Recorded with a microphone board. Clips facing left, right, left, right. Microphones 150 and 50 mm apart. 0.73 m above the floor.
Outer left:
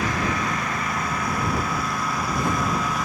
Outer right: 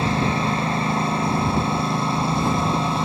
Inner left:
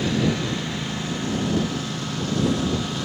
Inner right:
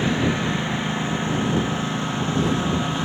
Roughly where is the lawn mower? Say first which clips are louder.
Outer right 4 dB, inner right 1 dB; right.